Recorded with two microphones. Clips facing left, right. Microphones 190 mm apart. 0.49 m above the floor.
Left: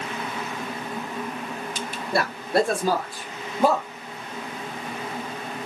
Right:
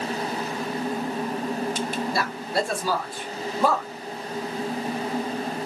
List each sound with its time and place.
2.1 s a man speaking: 60° left (ahead or behind), 1.5 m; by 3.9 s 15° left (ahead or behind), 1.1 m